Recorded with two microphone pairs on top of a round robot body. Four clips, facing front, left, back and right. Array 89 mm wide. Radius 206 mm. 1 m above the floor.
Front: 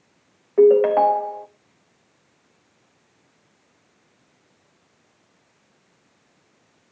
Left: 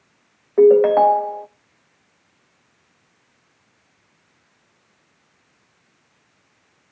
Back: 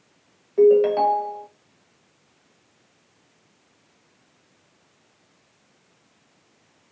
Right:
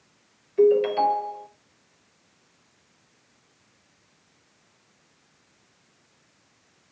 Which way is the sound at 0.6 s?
60° left.